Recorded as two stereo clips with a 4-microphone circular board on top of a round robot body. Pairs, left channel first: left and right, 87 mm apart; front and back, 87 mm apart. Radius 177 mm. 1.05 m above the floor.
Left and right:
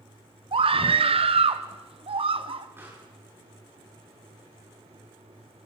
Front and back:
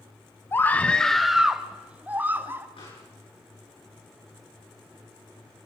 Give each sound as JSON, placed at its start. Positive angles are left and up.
{"t": 0.5, "sound": "a scream", "azimuth_deg": -65, "distance_m": 0.9}
{"t": 2.8, "sound": "a pop", "azimuth_deg": -25, "distance_m": 9.5}